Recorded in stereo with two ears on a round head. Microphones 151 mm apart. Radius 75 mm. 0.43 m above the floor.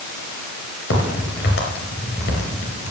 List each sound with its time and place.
0.9 s a crack: 75° left (ahead or behind), 3.5 m